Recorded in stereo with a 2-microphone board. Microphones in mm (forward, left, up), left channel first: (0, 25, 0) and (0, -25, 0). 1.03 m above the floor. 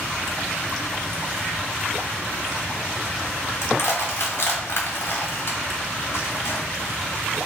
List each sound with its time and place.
3.6 s crushing: 55° left (ahead or behind), 1.1 m